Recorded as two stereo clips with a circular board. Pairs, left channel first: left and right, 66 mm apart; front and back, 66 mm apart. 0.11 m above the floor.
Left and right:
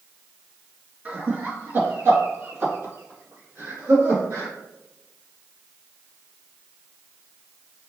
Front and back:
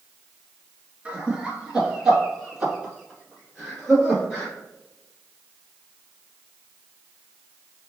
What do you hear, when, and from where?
1.1 s laughter: 125° right, 1.7 m; by 4.5 s 85° right, 3.5 m